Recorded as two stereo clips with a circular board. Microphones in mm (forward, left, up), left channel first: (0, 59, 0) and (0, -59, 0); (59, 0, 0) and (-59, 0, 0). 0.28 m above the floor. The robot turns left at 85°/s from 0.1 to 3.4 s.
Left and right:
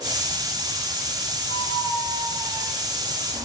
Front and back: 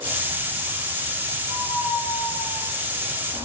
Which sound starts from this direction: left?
A squeak, at 1.5 s.